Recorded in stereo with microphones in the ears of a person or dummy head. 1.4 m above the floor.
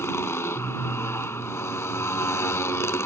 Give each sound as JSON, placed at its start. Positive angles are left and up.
{"t": 0.0, "sound": "a motorcycle", "side_deg": 10}